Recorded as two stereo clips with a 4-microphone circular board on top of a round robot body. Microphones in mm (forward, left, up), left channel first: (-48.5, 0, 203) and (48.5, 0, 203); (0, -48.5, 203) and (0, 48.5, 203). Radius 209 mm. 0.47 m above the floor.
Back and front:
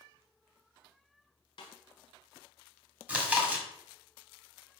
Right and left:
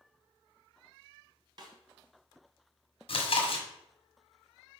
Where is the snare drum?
140° left, 1.1 m.